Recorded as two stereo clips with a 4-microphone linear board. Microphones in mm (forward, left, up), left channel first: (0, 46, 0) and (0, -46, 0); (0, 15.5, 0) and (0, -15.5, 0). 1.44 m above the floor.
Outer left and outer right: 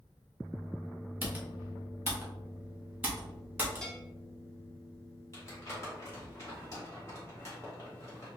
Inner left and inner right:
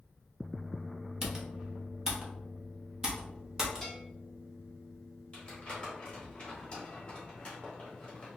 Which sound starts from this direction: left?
Crumpling, at 5.3 s.